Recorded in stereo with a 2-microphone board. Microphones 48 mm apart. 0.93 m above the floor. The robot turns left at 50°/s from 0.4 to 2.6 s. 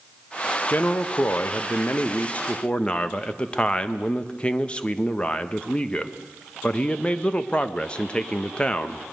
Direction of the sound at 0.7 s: 125° left.